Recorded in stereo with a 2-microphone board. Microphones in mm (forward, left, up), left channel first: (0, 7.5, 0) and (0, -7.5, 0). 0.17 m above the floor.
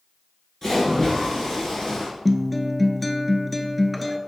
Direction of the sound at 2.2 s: 5° left (ahead or behind).